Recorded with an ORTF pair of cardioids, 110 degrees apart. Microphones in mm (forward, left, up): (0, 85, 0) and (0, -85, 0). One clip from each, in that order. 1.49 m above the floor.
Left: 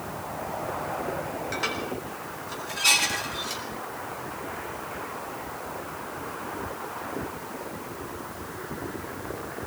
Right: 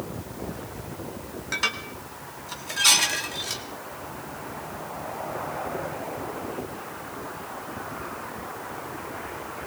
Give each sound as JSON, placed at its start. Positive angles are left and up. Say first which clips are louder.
{"t": 1.5, "sound": "dishes clattering", "louder": "right 5 dB", "azimuth_deg": -30, "distance_m": 2.0}